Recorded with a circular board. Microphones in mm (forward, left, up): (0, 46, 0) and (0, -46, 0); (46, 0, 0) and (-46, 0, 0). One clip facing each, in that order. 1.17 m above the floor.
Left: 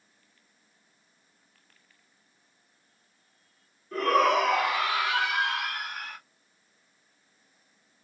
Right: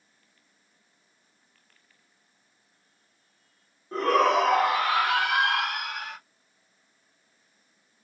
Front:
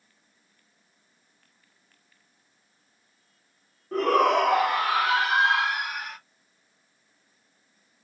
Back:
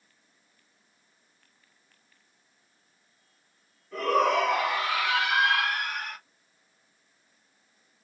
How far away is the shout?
About 1.9 m.